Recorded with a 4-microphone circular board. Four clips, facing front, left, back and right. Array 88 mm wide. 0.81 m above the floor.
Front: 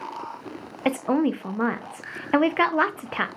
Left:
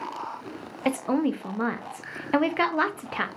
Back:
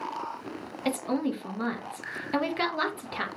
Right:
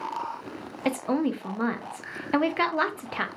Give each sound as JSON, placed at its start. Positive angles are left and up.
{"t": 0.8, "sound": "a woman speaking", "azimuth_deg": 5, "distance_m": 0.5}